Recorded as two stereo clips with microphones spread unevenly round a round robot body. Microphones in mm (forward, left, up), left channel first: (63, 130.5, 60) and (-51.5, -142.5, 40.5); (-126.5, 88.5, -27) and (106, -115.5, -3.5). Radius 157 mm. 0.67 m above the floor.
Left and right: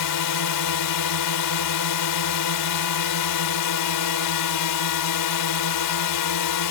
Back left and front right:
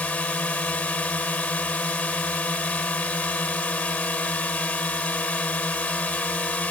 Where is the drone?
55° left.